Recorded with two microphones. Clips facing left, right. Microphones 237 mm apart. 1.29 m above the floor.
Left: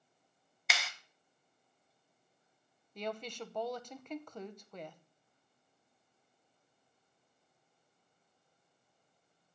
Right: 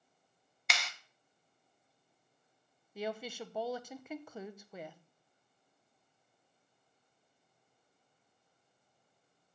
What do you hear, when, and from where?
0.7 s a clap: centre (ahead or behind), 0.8 m
3.0 s a woman speaking: 5° right (ahead or behind), 0.8 m